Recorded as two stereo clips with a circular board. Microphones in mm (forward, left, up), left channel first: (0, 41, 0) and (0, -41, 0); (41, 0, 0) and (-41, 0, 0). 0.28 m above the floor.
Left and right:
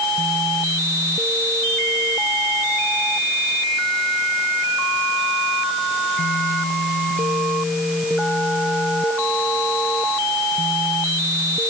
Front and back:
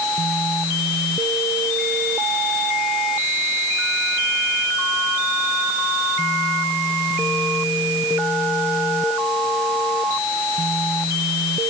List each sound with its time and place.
Only background noise.